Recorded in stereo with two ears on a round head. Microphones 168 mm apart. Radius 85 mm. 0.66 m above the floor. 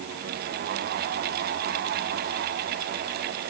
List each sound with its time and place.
Only background noise.